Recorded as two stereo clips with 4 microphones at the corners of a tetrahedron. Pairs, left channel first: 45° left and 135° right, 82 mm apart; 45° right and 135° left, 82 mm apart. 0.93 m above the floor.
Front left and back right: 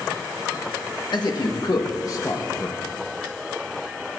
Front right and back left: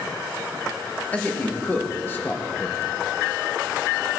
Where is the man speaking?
25° left, 1.9 m; by 2.8 s 5° right, 1.1 m.